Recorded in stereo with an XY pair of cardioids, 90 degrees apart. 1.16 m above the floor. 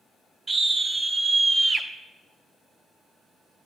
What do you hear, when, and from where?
0.5 s a scream: 45° right, 3 m; by 1.9 s 40° right, 2.0 m